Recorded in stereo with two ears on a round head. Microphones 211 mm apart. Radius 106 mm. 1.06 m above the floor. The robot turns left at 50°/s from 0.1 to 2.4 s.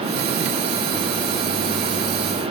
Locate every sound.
Only background noise.